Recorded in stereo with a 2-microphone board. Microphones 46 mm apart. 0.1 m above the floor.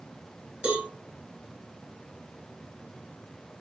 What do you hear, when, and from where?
0.6 s a cowbell: 20° right (ahead or behind), 1.1 m